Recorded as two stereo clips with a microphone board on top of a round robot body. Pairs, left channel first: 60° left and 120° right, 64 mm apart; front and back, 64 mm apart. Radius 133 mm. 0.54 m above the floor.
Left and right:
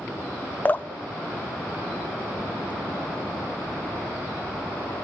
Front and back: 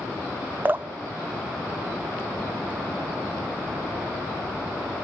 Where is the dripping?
120° left, 0.7 m.